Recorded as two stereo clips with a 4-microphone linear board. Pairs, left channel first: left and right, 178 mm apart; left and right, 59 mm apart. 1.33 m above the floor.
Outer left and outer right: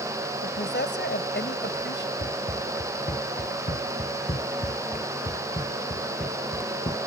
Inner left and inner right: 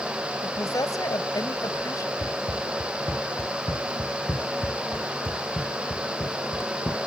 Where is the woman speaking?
75° left (ahead or behind).